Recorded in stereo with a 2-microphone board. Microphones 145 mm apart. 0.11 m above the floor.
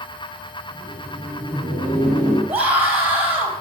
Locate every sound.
0.7 s laughter: 15° left (ahead or behind), 4 m
2.5 s a scream: 15° right (ahead or behind), 3 m